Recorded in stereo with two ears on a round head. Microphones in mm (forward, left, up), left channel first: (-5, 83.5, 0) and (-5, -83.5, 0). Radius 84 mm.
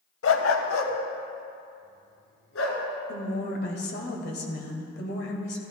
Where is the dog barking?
80° left, 0.8 m.